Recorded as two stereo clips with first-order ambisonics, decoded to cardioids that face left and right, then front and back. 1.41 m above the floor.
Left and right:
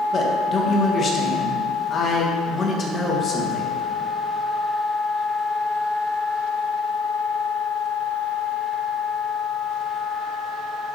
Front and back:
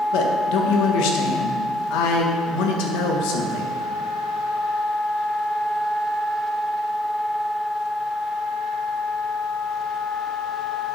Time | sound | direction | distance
0.1 | a man speaking | 25° left | 1.6 m